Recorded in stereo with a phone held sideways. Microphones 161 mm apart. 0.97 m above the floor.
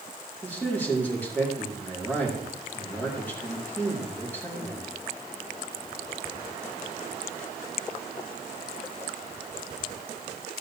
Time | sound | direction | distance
0.4 | a man speaking | 10° left (ahead or behind) | 2.5 m